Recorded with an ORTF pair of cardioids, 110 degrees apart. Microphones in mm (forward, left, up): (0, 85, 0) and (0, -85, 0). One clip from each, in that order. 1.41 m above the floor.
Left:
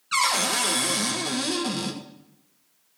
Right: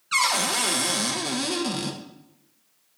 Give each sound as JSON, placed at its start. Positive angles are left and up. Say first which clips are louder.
{"t": 0.1, "sound": "a cupboard door", "louder": "even", "azimuth_deg": -5, "distance_m": 1.4}